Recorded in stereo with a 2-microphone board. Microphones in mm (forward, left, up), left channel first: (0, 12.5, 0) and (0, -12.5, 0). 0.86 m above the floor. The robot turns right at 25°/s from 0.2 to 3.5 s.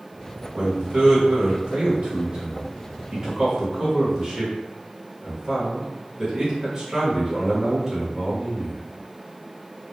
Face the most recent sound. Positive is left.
turn(degrees=-25)